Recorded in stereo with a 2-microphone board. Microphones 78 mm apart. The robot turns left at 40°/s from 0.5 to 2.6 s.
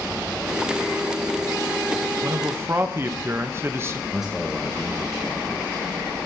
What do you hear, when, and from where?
2.2 s a man speaking: 40° right (ahead or behind), 0.8 m; by 4.0 s 30° right (ahead or behind), 0.8 m
4.1 s a man speaking: 5° right (ahead or behind), 1.1 m